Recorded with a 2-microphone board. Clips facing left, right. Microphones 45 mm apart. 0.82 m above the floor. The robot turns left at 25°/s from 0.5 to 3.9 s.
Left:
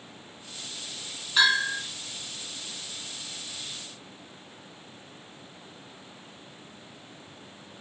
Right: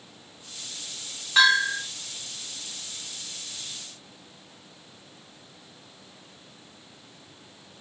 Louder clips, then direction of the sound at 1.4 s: Right 3 dB; 75° right (ahead or behind).